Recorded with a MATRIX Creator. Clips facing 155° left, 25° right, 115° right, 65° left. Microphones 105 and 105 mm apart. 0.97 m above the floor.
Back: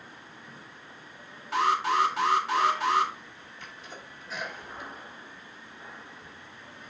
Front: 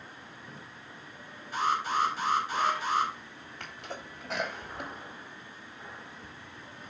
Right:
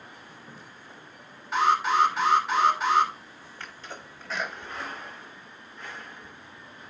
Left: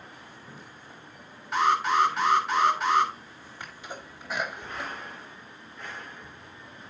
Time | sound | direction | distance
1.5 | an alarm | 160° left | 3.5 m
3.6 | a sneeze | 5° right | 2.5 m